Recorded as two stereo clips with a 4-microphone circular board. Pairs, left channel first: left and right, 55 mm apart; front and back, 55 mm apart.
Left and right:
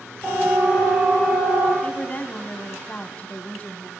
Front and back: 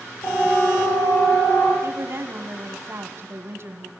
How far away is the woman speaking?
About 1.9 m.